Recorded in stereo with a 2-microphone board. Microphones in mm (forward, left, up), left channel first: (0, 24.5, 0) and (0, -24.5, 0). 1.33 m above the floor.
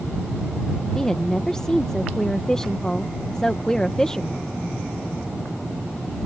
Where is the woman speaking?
15° left (ahead or behind).